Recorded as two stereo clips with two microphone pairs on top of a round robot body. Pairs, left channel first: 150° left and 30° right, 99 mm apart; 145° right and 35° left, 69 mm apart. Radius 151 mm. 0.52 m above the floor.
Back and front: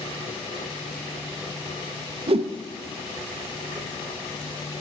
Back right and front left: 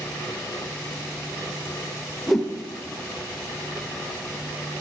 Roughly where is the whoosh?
Ahead right.